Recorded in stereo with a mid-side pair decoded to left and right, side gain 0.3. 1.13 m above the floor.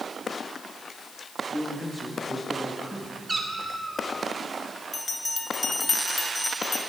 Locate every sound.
1.5 s a man speaking: 5° left, 1.9 m
3.3 s a cat meowing: 30° right, 2 m
4.9 s a bell: 40° left, 1.5 m